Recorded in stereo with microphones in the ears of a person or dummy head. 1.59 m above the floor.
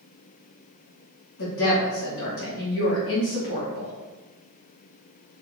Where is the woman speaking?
55° left (ahead or behind), 1.1 m.